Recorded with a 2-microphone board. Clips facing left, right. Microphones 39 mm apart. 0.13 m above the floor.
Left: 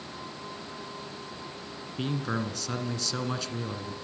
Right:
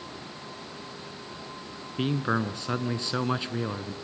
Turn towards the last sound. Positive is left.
turn(degrees=-25)  # may be behind; listen again after turning